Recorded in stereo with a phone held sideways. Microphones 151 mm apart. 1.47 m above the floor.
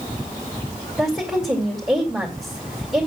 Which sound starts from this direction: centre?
A woman speaking, at 1.0 s.